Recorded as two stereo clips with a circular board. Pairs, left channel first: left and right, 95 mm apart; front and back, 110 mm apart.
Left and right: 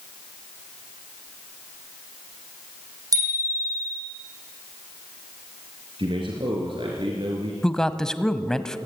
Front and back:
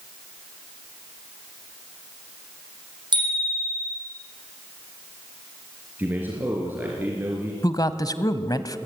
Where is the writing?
No writing in this recording.